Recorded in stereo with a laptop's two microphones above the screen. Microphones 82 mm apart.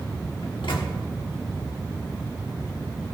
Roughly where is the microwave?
Left.